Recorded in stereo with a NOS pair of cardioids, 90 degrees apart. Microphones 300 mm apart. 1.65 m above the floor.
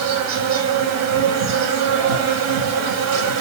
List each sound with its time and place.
0.0 s an insect: 65° right, 1.1 m